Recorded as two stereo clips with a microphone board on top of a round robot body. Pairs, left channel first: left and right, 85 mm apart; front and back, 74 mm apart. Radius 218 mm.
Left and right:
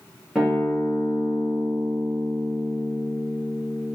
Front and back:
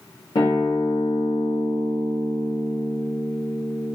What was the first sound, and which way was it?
A guitar, 5° right.